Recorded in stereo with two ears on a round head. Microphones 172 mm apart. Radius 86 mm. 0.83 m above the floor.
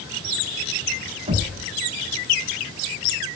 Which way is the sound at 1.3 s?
35° right (ahead or behind).